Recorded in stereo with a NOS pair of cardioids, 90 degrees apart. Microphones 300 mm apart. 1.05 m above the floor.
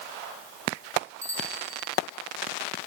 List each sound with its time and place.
1.2 s a bicycle bell: 10° right, 9 m